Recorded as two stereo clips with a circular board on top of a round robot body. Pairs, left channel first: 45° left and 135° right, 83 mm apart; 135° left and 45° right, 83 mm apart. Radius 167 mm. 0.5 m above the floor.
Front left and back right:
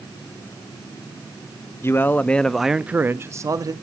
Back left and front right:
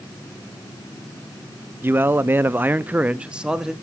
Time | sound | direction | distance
1.8 | a man speaking | 5° left | 0.8 m